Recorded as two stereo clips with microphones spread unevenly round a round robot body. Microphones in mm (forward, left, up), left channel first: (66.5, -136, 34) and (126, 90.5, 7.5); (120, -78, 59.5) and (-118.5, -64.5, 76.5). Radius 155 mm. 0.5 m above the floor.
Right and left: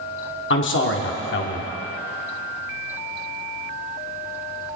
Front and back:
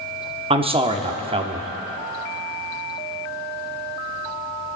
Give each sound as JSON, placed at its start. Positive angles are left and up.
{"t": 0.5, "sound": "a man speaking", "azimuth_deg": -120, "distance_m": 1.3}